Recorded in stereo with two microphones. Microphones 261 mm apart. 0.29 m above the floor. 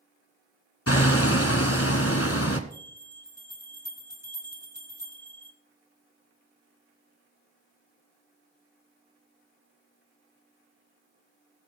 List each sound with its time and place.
0.9 s hammering: 60° left (ahead or behind), 1.4 m
2.7 s a bell: 80° left, 9 m